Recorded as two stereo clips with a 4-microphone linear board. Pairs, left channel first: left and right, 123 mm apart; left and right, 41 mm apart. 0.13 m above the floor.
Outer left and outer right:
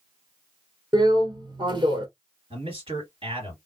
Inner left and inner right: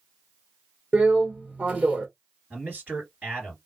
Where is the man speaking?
50° right (ahead or behind), 2.5 m.